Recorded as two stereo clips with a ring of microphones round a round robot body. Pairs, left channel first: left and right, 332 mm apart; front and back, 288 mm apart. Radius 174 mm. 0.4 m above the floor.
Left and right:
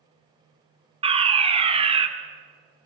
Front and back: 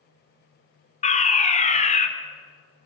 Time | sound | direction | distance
1.0 | a fire alarm | 35° right | 1.9 m